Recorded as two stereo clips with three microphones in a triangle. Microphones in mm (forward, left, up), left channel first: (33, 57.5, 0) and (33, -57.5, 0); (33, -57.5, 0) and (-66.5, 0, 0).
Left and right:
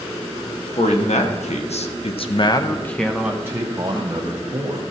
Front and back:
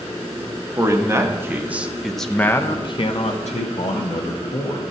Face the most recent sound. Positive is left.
turn(degrees=-45)